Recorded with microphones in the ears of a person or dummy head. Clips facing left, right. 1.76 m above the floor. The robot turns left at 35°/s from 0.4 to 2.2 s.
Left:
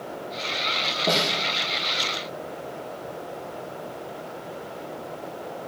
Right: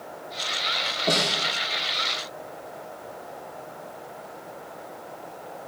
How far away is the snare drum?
About 1.4 m.